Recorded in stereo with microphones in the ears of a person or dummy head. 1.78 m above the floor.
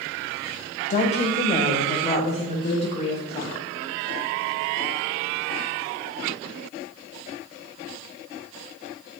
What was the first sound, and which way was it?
A woman speaking, 35° left (ahead or behind).